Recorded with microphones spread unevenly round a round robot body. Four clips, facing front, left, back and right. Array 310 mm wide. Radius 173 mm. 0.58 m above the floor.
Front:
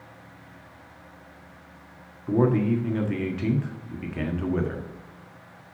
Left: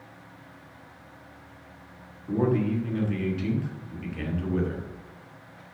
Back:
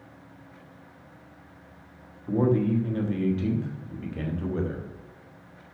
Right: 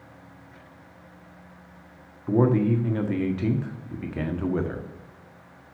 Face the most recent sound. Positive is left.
turn(degrees=-60)